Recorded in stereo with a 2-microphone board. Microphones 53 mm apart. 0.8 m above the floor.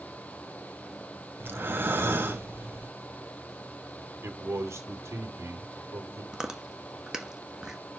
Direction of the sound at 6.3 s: 10° right (ahead or behind).